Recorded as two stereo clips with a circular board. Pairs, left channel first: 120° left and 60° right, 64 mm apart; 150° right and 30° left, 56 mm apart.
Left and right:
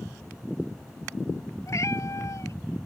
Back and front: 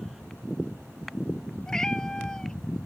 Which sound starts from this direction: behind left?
A cat meowing, at 1.7 s.